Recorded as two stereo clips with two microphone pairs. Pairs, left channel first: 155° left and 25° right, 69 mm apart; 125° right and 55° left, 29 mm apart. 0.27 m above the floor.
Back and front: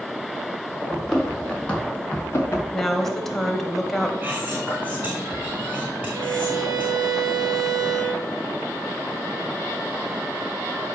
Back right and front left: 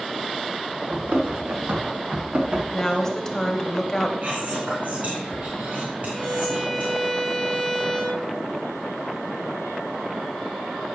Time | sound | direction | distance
0.9 | running footsteps | 70° left | 3 m
2.7 | a woman speaking | 135° right | 0.9 m
4.2 | whispering | 40° left | 2 m
6.1 | a violin | 35° right | 1.6 m